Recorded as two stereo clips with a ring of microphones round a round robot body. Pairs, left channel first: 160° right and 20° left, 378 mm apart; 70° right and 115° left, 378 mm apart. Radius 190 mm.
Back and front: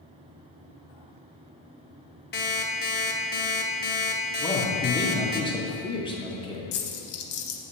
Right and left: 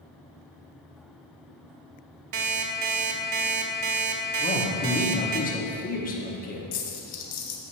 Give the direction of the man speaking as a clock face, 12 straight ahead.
3 o'clock.